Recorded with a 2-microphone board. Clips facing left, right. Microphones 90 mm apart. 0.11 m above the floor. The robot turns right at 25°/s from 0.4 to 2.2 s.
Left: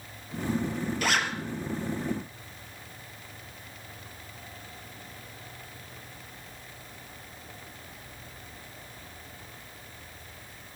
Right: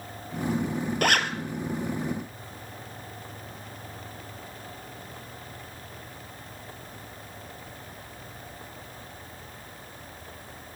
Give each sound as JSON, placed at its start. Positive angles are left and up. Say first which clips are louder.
{"t": 1.0, "sound": "a zipper", "louder": "right 4 dB", "side_deg": -60, "distance_m": 1.4}